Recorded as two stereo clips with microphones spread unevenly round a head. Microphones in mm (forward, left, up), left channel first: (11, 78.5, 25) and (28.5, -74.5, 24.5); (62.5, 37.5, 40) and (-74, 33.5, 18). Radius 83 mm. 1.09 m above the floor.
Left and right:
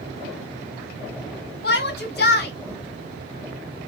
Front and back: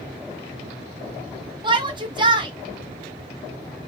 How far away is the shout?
About 1.7 m.